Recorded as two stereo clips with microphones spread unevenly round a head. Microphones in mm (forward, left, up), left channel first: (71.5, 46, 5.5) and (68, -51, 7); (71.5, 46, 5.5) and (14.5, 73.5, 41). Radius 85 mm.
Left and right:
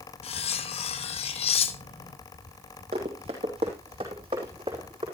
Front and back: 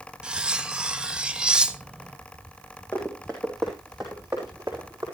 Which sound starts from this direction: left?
Cutlery clinking, at 0.2 s.